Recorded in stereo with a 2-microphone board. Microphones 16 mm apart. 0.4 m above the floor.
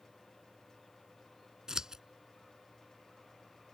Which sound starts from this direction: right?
Scissors, at 1.7 s.